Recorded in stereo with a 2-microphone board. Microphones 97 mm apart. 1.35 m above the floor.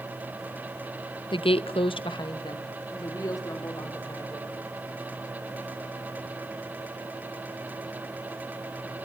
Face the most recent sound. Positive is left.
turn(degrees=30)  # may be behind; listen again after turning